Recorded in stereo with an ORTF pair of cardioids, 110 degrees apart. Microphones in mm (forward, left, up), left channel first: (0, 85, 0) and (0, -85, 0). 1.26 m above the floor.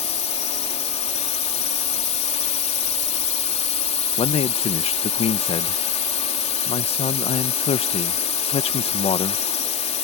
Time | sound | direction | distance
0.0 | a drone | 40° left | ?
4.2 | a man speaking | 35° left | ?